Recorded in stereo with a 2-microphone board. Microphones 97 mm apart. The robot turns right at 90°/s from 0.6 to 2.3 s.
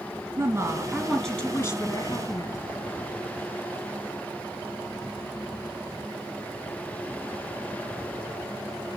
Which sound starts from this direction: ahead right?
A woman speaking, at 0.4 s.